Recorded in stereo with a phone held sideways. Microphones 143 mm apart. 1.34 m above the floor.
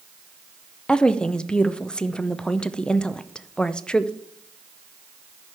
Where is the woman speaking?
5° left (ahead or behind), 0.5 m.